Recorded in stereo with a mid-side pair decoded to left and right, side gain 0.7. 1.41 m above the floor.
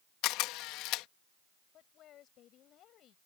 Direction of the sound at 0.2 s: 65° left.